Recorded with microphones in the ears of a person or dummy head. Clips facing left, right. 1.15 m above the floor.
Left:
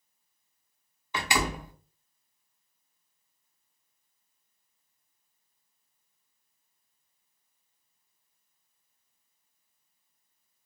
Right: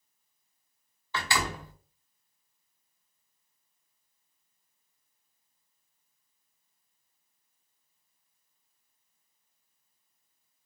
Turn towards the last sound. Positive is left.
turn(degrees=10)  # may be behind; listen again after turning